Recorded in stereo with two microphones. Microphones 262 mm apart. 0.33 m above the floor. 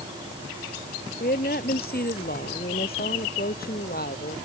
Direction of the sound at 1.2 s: 35° left (ahead or behind).